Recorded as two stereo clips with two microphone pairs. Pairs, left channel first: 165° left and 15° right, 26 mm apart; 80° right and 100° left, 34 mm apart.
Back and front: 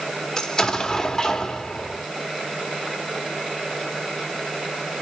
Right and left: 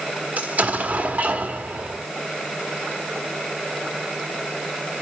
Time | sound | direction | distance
0.4 | an explosion | 100° left | 1.1 m